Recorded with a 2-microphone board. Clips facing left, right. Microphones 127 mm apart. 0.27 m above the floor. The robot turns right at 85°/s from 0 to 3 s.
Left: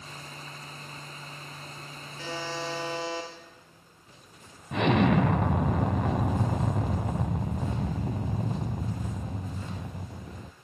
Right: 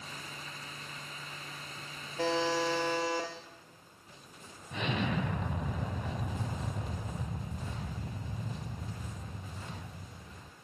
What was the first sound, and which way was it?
A buzzer, 125° right.